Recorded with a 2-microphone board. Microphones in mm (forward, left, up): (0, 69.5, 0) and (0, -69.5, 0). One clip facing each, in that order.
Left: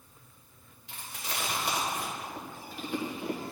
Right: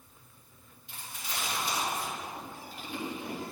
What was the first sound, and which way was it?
Chewing, 75° left (ahead or behind).